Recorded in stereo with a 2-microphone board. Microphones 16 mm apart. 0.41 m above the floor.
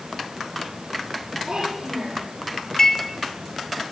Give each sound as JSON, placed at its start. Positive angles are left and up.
{"t": 1.5, "sound": "a child speaking", "side_deg": -65, "distance_m": 9.5}
{"t": 2.8, "sound": "dishes clattering", "side_deg": 35, "distance_m": 3.5}